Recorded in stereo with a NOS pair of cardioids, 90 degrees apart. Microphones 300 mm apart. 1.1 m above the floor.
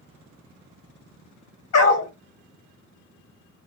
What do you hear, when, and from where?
1.7 s a dog barking: 60° left, 1.7 m